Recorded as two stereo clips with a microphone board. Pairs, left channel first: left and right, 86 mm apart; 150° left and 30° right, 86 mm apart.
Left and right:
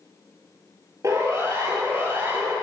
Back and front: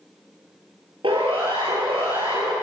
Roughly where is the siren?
Ahead right.